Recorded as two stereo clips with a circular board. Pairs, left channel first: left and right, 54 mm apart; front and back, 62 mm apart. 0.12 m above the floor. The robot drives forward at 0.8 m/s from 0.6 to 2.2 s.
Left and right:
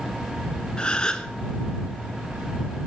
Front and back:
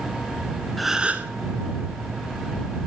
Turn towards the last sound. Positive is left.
turn(degrees=170)